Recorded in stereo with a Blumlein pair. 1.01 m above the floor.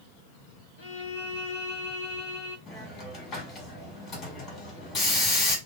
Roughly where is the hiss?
Ahead left.